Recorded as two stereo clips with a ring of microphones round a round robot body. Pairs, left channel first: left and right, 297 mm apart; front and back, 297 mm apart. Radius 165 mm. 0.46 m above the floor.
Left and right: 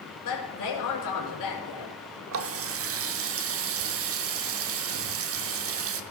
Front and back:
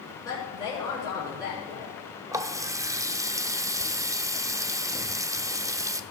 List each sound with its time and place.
0.2 s a woman speaking: 80° left, 5 m
2.3 s a running tap: 105° right, 0.6 m